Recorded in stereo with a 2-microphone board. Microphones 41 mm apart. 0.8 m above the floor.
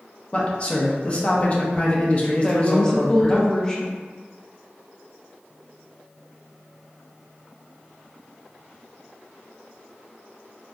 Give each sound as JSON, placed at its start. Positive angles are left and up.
{"t": 0.3, "sound": "a man speaking", "side_deg": 30, "distance_m": 0.6}
{"t": 2.4, "sound": "a woman speaking", "side_deg": 15, "distance_m": 0.6}